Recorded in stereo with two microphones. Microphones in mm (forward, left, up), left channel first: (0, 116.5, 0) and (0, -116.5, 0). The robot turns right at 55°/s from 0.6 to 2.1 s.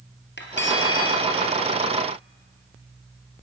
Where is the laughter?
No laughter in this recording.